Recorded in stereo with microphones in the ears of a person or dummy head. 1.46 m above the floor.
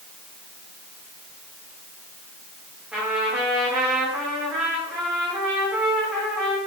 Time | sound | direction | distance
2.9 | a trumpet | 5° right (ahead or behind) | 3.5 m